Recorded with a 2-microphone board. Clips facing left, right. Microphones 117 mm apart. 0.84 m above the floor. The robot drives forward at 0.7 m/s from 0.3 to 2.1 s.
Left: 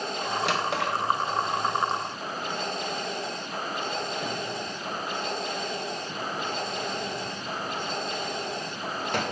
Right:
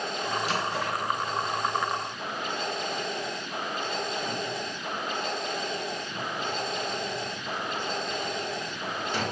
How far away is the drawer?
About 1.5 m.